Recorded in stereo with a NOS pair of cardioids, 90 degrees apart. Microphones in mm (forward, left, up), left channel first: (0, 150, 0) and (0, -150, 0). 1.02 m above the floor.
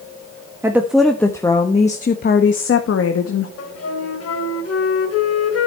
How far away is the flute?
About 2.5 m.